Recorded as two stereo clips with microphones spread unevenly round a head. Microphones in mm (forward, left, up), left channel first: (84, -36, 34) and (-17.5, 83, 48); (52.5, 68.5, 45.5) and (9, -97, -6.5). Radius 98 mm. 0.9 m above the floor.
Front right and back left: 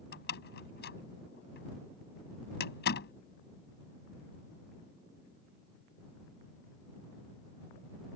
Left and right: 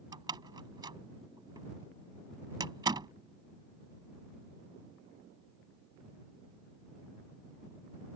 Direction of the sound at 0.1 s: 35° right.